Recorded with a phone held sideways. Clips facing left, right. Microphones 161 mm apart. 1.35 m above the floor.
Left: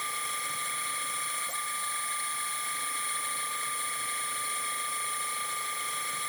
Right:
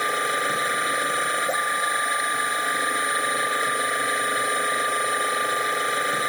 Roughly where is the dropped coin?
I don't hear a dropped coin.